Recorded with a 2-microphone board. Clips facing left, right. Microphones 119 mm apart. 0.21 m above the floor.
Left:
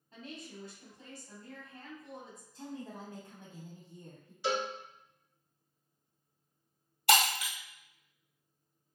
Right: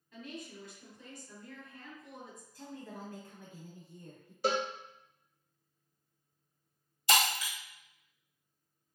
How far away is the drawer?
No drawer in this recording.